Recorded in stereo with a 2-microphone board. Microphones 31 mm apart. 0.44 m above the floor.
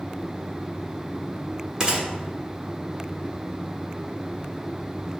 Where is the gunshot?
25° right (ahead or behind), 1.1 m.